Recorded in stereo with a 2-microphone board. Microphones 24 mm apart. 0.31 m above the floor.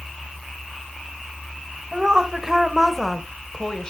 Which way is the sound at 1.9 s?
30° right (ahead or behind).